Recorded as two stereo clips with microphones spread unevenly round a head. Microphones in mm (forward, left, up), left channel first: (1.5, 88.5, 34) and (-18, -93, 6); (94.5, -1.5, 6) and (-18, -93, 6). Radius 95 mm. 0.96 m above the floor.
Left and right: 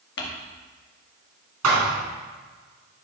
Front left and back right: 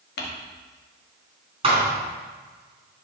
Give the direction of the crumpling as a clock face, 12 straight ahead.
10 o'clock.